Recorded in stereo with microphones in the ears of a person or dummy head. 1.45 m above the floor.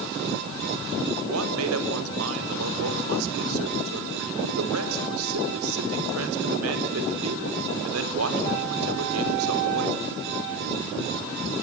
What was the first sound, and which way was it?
A man speaking, 85° right.